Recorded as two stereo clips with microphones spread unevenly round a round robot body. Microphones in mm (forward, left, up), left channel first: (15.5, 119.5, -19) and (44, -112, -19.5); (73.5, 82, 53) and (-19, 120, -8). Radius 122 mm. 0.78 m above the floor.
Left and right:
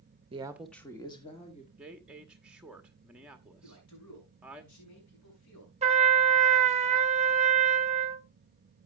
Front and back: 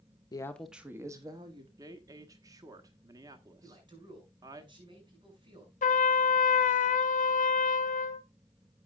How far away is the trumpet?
About 0.7 m.